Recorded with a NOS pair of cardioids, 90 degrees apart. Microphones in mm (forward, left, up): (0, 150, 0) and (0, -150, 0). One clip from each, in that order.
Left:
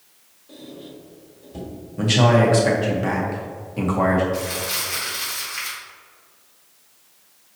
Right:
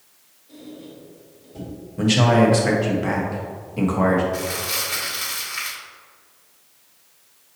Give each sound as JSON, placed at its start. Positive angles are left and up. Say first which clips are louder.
{"t": 0.5, "sound": "a squeak", "louder": "left 1 dB", "azimuth_deg": 55, "distance_m": 1.6}
{"t": 2.0, "sound": "a man speaking", "louder": "even", "azimuth_deg": 0, "distance_m": 1.0}
{"t": 4.3, "sound": "crumpling", "louder": "even", "azimuth_deg": -15, "distance_m": 1.3}